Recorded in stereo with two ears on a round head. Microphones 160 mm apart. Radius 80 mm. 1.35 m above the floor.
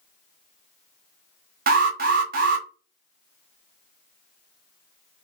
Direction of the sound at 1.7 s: 50° right (ahead or behind).